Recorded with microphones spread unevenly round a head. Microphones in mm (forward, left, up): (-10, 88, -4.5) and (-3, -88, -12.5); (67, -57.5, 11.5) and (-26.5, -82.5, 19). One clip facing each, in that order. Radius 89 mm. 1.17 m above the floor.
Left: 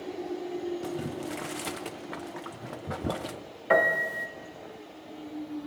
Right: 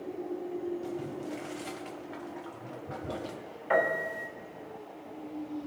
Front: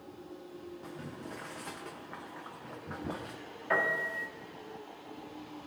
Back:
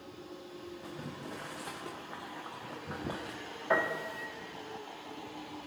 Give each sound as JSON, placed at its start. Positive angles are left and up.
{"t": 0.8, "sound": "boiling", "azimuth_deg": 110, "distance_m": 0.6}
{"t": 3.7, "sound": "a piano", "azimuth_deg": 120, "distance_m": 1.1}